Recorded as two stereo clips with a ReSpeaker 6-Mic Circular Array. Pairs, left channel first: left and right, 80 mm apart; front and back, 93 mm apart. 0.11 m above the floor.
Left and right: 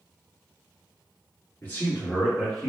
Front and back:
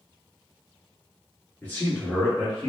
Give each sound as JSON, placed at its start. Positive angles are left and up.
{"t": 1.6, "sound": "a man speaking", "azimuth_deg": 55, "distance_m": 1.5}